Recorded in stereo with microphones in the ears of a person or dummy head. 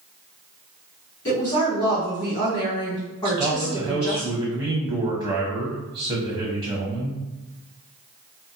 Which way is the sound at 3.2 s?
20° right (ahead or behind).